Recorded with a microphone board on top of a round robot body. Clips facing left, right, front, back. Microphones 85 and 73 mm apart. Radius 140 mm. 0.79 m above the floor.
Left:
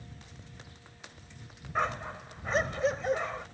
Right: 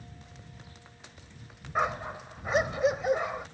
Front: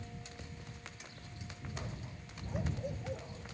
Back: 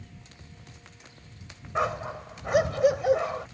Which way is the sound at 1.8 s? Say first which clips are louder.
Right 2 dB, back 22 dB; 170° right.